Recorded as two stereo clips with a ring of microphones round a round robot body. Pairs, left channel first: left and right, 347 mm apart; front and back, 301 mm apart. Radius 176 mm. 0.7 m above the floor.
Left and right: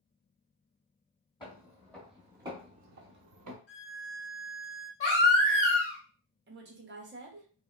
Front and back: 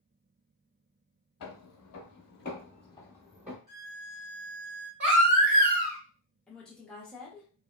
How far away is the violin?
About 1.4 m.